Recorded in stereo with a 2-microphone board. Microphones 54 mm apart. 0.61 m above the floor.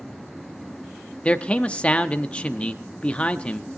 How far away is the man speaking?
About 0.6 m.